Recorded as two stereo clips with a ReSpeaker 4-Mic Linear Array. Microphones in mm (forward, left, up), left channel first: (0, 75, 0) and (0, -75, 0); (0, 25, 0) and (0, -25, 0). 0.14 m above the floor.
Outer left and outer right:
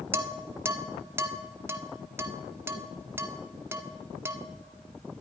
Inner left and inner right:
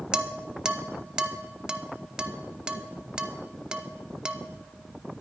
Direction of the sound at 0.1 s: 15° right (ahead or behind).